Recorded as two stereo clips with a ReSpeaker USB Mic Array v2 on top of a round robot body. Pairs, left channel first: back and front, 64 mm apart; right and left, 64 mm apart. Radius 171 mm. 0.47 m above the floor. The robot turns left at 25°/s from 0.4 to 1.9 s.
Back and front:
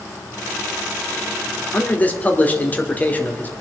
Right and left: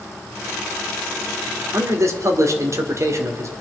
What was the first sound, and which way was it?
A man speaking, 125° left.